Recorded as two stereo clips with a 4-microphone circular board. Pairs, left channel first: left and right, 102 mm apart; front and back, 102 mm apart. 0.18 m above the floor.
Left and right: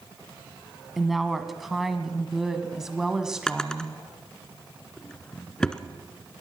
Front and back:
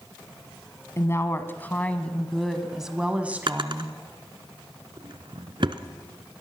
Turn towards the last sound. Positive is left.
turn(degrees=170)